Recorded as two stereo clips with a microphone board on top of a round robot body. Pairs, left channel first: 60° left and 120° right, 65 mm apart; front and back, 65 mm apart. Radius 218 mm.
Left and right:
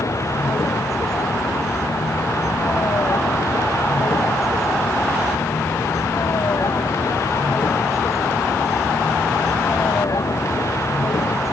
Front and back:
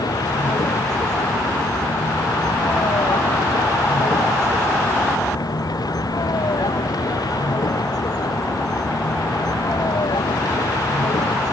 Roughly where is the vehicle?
Ahead.